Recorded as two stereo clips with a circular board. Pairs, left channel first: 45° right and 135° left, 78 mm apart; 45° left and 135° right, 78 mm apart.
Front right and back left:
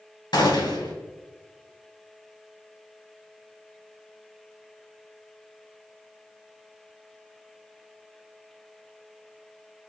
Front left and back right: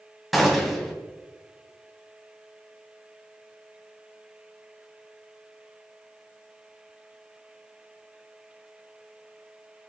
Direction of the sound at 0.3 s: 45° right.